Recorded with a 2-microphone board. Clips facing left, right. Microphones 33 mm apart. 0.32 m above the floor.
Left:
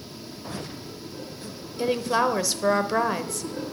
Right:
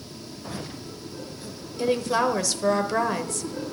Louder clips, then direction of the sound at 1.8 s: Even; 10° left (ahead or behind).